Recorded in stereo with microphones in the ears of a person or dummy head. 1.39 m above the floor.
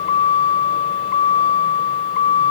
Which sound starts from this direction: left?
A vehicle, at 0.0 s.